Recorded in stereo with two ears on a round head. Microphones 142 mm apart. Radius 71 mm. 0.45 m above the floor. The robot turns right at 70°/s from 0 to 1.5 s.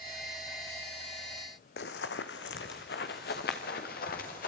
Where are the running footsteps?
70° left (ahead or behind), 1.6 m; by 4.5 s 60° left (ahead or behind), 4 m.